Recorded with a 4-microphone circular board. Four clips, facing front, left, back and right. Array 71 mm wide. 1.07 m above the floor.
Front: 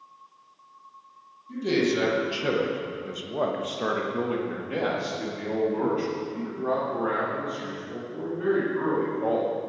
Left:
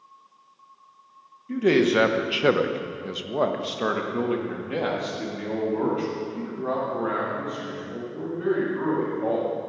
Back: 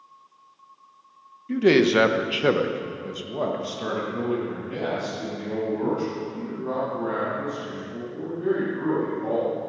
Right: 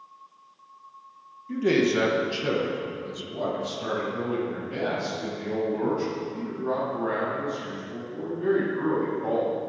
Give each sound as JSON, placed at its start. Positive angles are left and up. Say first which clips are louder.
{"t": 1.5, "sound": "a man speaking", "louder": "left 3 dB, back 7 dB", "azimuth_deg": 170, "distance_m": 1.1}